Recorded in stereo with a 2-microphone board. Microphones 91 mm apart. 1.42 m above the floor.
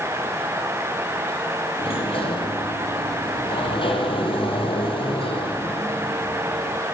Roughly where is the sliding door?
Left.